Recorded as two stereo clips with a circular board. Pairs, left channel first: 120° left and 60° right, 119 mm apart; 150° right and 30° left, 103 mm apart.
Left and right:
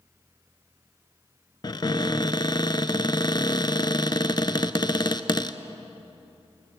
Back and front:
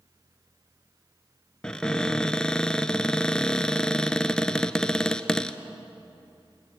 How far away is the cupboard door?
About 0.6 m.